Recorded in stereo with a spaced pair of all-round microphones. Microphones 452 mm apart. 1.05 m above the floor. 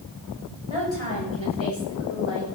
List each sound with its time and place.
0.7 s a woman speaking: 80° left, 5.5 m; by 2.5 s 70° left (ahead or behind), 6 m